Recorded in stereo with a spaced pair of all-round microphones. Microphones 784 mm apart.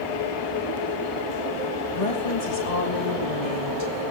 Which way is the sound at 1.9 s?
45° left (ahead or behind).